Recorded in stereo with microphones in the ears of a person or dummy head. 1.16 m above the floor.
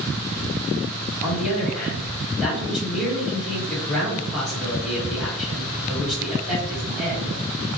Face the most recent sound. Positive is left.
turn(degrees=-10)  # may be behind; listen again after turning